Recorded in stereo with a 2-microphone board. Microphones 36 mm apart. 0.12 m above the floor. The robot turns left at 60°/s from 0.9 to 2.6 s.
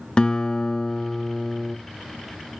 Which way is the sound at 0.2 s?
20° left (ahead or behind).